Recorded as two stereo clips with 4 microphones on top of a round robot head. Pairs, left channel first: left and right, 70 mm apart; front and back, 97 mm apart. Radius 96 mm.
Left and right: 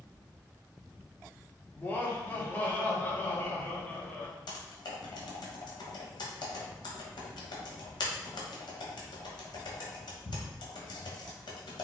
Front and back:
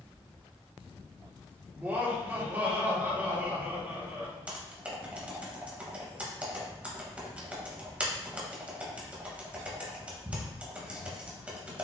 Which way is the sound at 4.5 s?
100° left.